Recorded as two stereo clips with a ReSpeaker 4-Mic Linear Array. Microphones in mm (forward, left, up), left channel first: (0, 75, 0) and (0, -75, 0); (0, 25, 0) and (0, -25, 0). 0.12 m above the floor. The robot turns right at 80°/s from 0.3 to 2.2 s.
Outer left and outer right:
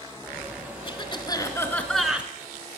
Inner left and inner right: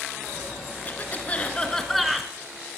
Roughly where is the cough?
Left.